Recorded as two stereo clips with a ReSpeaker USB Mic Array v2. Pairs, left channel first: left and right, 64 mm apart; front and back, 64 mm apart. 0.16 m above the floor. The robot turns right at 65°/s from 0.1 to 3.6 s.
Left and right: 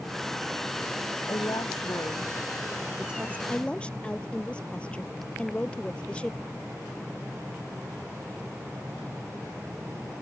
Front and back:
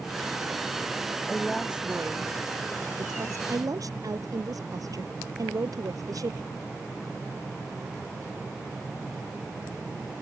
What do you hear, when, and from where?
1.2 s a woman speaking: 70° left; by 3.4 s 150° right
3.5 s a woman speaking: 155° left; by 6.4 s 160° left